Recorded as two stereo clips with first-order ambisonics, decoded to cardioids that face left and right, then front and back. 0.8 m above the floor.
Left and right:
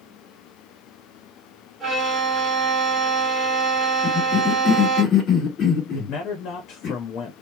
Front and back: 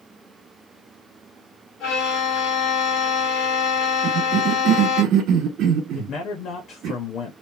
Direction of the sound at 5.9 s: 45° left.